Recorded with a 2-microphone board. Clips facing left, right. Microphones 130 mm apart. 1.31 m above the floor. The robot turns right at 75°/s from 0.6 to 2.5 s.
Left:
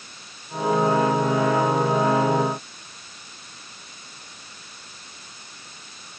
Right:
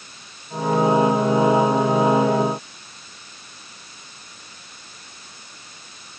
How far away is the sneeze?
No sneeze in this recording.